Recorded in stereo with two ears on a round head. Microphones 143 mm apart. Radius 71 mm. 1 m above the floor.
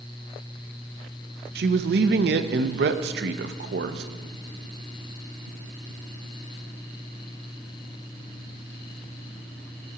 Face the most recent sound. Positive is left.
turn(degrees=-70)  # may be behind; listen again after turning